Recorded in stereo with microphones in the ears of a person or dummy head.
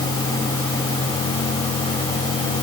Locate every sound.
Only background noise.